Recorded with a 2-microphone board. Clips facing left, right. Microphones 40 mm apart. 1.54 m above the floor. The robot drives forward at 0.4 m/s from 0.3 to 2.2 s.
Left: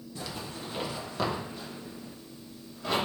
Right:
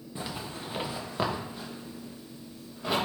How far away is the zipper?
About 0.7 m.